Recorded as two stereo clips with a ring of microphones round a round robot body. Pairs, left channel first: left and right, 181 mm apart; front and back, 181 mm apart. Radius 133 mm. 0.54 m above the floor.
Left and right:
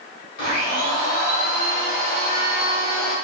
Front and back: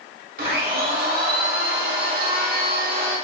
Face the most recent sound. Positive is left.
turn(degrees=140)